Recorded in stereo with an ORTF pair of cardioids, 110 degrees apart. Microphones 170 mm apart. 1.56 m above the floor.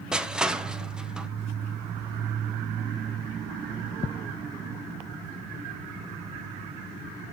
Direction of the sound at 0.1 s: 5° right.